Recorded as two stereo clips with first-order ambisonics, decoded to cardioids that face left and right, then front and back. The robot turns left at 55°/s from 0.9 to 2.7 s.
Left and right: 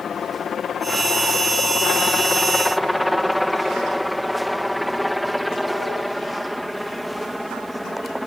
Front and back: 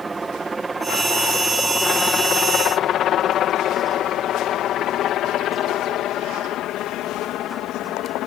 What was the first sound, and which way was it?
A helicopter, 115° left.